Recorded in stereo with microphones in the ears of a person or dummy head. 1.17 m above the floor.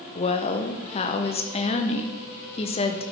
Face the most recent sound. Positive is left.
turn(degrees=25)  # may be behind; listen again after turning